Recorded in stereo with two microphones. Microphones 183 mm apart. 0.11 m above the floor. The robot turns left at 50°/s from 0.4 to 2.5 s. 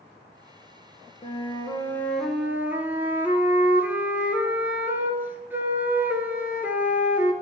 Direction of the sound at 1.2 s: 50° left.